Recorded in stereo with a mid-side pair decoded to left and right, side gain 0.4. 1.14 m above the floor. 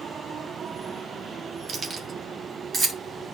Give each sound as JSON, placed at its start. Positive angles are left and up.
{"t": 1.7, "sound": "keys jangling", "azimuth_deg": -60, "distance_m": 1.7}